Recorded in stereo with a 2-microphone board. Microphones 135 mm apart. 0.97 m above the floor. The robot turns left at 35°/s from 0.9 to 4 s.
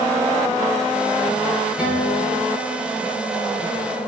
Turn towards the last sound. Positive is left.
turn(degrees=110)